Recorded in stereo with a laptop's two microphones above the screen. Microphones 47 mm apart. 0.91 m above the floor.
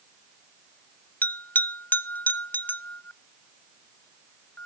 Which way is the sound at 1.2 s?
35° left (ahead or behind).